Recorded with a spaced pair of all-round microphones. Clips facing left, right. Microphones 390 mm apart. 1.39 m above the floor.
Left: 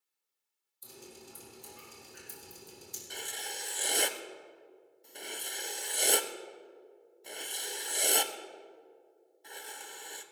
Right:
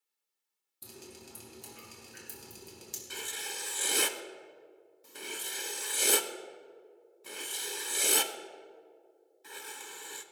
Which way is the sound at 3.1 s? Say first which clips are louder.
Even; 15° right (ahead or behind).